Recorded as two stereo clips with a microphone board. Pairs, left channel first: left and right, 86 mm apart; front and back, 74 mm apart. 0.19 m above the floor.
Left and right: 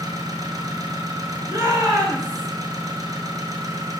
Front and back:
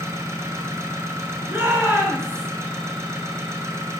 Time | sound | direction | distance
0.0 | an engine running | 130° right | 1.1 m
1.5 | a shout | 125° right | 3 m